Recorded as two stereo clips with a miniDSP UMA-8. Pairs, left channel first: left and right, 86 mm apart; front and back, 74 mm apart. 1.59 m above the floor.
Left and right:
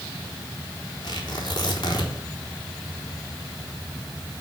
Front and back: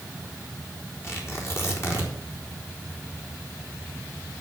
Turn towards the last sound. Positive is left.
turn(degrees=55)